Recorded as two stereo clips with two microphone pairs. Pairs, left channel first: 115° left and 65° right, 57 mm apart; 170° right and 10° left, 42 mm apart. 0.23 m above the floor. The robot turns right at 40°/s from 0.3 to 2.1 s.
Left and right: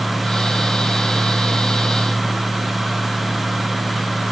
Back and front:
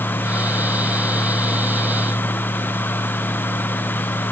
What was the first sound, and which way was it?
Only background noise.